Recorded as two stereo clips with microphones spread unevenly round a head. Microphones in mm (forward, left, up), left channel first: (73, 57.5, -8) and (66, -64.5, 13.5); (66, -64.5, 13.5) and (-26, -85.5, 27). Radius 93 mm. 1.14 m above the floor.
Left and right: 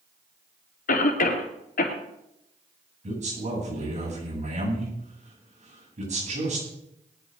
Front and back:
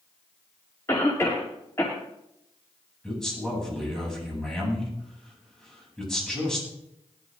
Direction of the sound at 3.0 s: 70° right.